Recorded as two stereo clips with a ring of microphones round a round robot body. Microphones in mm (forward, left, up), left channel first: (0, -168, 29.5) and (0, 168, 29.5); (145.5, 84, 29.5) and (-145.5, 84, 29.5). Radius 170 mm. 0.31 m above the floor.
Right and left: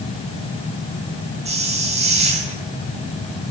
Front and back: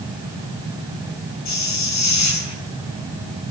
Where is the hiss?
20° left, 4.5 m.